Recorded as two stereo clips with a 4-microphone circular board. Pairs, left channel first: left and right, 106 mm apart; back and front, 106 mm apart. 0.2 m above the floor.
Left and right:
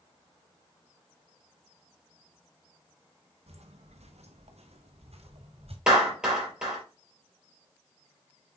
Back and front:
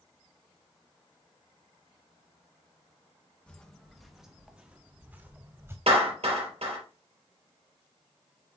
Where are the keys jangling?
No keys jangling in this recording.